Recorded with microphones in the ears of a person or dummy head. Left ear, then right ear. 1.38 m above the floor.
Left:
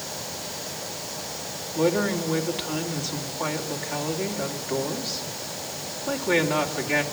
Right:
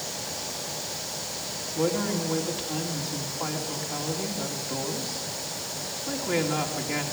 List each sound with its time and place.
1.8 s a woman speaking: 15° left (ahead or behind), 2.5 m